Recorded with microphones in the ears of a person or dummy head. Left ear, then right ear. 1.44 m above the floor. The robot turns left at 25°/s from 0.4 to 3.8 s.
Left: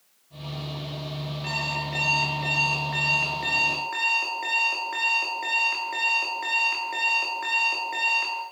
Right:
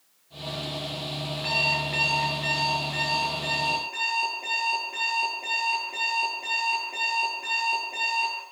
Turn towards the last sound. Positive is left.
turn(degrees=140)